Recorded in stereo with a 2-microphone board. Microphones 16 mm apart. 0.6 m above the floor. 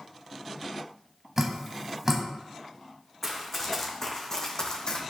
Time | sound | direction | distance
1.4 | dripping | 25° right (ahead or behind) | 0.9 m
3.2 | running footsteps | 10° left (ahead or behind) | 2 m